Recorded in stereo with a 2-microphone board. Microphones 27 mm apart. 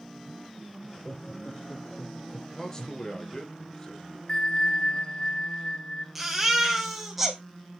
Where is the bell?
30° left (ahead or behind), 0.9 m.